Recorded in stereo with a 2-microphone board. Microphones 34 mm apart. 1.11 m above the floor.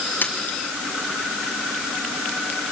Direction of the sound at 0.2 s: 65° left (ahead or behind).